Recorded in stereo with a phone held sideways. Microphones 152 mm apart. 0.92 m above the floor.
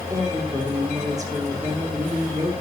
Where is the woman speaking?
20° right (ahead or behind), 3 m.